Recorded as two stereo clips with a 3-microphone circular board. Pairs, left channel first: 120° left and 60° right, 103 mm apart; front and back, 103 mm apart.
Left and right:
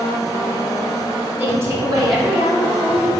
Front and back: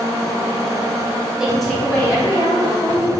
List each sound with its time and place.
1.4 s a woman speaking: 110° right, 0.7 m; by 3.1 s 40° right, 1.2 m